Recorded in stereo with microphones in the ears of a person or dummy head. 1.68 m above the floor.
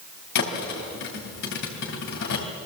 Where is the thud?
60° left (ahead or behind), 3 m.